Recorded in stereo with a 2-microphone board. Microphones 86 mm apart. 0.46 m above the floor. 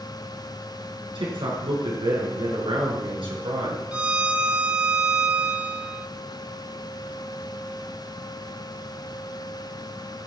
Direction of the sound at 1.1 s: 70° right (ahead or behind).